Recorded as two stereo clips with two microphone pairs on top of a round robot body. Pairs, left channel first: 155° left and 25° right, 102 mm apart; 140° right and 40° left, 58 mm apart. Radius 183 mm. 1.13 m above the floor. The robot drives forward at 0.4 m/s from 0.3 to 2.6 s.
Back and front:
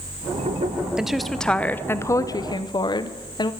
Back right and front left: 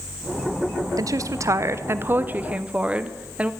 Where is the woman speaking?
60° left, 0.9 m; by 3.5 s 105° left, 0.8 m.